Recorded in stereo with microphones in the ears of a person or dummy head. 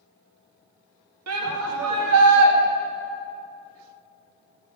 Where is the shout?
85° right, 1.6 m.